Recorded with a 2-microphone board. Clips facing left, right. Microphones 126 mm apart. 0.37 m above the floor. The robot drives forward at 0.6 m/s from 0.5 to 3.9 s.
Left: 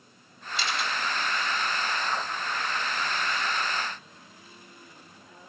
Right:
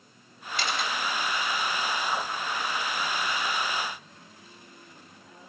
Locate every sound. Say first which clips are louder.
0.6 s a camera shutter: right 1 dB; 55° right (ahead or behind), 1.4 m; by 0.9 s 60° right (ahead or behind), 1.4 m